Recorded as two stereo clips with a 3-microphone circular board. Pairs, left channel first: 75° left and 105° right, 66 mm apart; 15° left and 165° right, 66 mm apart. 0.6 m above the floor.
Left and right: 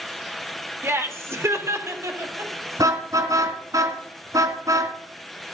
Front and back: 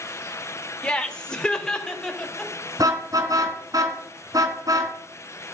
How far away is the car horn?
About 2.5 m.